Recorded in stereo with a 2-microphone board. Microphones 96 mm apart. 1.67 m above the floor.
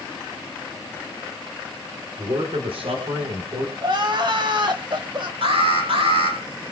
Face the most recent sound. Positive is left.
turn(degrees=-75)  # may be behind; listen again after turning